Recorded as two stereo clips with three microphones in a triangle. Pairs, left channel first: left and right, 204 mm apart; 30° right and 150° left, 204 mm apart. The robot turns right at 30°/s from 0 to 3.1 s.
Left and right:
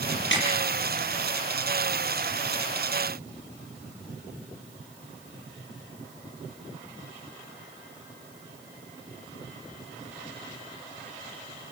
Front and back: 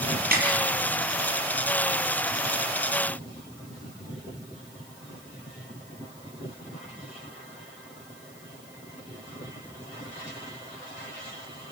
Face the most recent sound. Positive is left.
turn(degrees=-170)